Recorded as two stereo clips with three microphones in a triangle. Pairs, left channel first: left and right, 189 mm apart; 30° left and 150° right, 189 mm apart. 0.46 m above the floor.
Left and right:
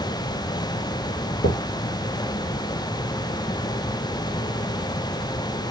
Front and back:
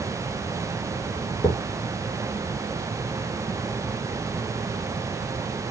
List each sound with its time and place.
1.4 s a thud: 100° left, 6 m